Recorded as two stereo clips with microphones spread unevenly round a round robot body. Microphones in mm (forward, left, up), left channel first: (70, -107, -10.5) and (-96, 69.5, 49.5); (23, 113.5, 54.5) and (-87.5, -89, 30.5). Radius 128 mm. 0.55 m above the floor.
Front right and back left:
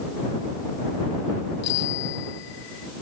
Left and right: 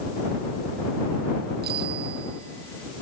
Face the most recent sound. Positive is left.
turn(degrees=-65)